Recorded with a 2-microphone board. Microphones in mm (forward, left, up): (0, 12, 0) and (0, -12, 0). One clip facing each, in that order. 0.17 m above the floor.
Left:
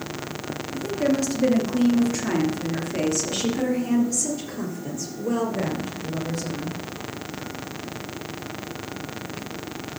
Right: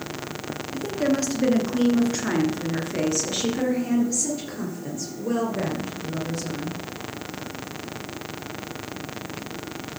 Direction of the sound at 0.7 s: 55° right (ahead or behind).